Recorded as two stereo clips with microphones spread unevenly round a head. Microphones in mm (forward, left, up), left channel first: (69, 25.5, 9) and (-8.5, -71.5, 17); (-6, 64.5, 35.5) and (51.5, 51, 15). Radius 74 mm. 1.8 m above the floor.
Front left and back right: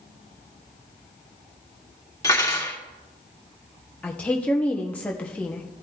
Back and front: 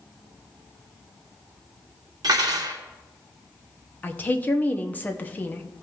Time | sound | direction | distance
2.2 | cutlery clinking | 15° right | 2.5 m
4.0 | a woman speaking | 135° left | 0.9 m